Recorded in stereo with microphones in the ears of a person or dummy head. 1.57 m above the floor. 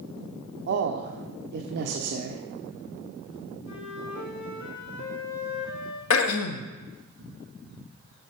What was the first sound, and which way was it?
A man speaking, 60° right (ahead or behind).